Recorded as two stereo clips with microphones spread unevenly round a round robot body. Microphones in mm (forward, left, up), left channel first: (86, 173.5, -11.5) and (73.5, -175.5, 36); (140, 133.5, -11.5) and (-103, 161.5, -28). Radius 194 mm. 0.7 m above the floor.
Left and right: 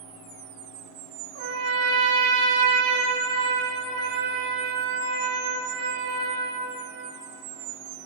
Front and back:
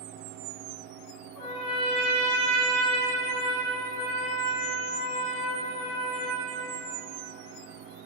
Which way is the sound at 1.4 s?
60° right.